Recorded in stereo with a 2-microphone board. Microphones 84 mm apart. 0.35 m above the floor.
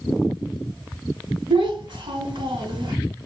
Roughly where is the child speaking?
Right.